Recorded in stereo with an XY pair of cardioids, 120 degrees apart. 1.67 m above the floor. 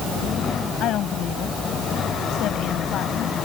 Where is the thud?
I don't hear a thud.